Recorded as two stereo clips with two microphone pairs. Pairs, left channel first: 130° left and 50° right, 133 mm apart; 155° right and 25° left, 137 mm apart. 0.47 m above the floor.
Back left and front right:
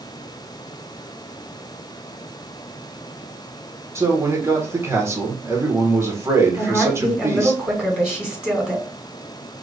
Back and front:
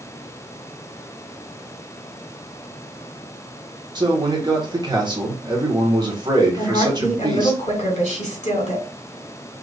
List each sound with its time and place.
4.0 s a man speaking: 5° left, 1.3 m
6.6 s a woman speaking: 135° right, 2.5 m